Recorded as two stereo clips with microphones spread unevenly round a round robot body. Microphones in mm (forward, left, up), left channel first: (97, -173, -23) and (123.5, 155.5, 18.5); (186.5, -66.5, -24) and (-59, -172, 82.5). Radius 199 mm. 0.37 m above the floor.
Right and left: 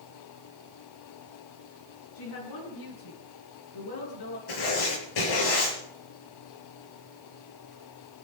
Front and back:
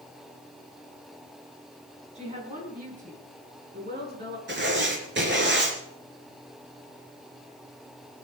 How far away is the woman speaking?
About 5 m.